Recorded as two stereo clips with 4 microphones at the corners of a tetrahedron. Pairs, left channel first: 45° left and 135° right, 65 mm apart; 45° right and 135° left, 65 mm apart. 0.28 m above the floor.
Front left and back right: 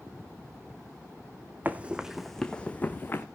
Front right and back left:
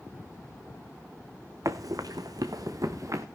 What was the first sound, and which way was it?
Running footsteps, 165° left.